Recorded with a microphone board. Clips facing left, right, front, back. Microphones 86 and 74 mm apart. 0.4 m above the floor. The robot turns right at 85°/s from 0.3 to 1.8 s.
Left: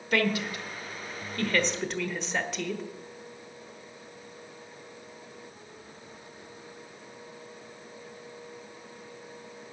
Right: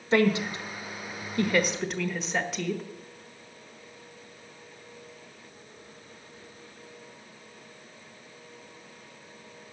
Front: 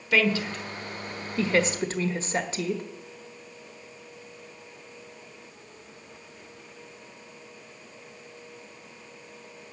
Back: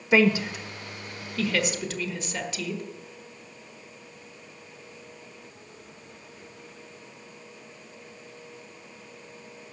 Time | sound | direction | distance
0.1 | a woman speaking | 130° right | 1.2 m